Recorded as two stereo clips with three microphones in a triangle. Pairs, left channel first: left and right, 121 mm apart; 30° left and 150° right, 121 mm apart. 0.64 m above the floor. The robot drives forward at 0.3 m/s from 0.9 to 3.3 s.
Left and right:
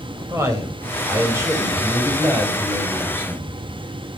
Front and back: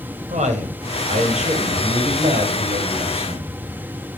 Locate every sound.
0.3 s a man speaking: 155° right, 3.5 m; by 3.6 s 160° right, 4 m